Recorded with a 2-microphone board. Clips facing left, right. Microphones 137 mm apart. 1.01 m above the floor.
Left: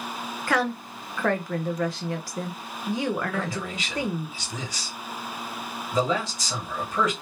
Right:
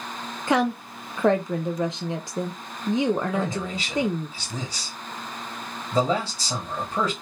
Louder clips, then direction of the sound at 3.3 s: Right 3 dB; 30° right (ahead or behind).